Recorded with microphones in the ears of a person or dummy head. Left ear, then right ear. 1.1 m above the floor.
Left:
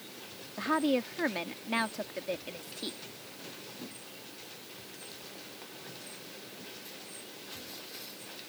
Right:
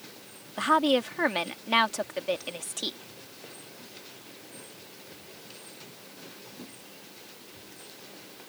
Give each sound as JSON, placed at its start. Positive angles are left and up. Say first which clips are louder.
{"t": 0.6, "sound": "a woman speaking", "louder": "right 6 dB", "side_deg": -35}